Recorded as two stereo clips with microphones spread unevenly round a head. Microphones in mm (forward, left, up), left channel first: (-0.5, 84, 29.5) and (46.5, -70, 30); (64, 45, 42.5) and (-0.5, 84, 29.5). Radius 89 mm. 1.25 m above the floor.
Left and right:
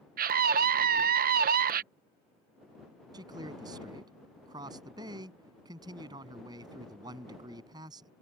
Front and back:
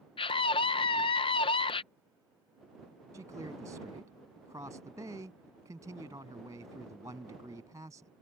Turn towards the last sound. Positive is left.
turn(degrees=-140)